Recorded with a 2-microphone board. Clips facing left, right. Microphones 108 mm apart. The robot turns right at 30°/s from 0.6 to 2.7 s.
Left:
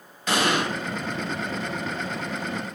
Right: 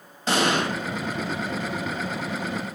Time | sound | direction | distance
0.3 | an explosion | 30° right (ahead or behind) | 1.0 m